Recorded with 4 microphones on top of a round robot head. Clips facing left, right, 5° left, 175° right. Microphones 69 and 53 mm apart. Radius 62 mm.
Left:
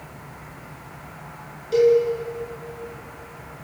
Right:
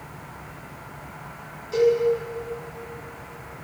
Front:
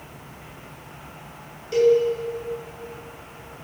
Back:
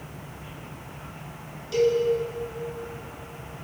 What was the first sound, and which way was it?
A cowbell, 60° left.